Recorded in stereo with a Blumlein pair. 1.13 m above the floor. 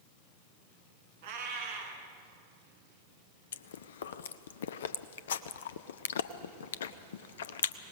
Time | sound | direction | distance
1.2 | a cat meowing | 55° right | 3 m
3.5 | chewing | 60° left | 0.7 m